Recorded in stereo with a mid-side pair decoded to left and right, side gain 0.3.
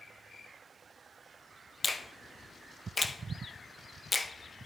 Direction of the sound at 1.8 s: 40° left.